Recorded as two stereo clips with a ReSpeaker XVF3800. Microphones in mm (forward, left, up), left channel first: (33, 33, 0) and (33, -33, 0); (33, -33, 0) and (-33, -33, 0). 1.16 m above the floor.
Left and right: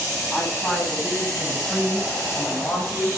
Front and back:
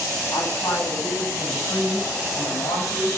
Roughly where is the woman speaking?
Ahead.